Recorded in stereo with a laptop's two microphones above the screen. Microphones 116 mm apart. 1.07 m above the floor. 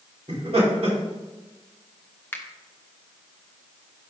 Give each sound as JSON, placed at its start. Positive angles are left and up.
{"t": 0.3, "sound": "laughter", "side_deg": -70, "distance_m": 3.0}
{"t": 2.3, "sound": "a finger snap", "side_deg": 20, "distance_m": 0.6}